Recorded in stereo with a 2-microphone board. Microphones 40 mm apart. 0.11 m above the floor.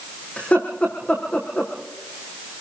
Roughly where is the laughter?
Left.